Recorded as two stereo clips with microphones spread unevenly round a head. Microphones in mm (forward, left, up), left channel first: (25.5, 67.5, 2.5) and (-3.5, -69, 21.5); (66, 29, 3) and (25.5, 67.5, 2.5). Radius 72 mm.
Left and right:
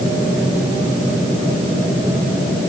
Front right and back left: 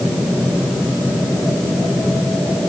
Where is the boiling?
No boiling in this recording.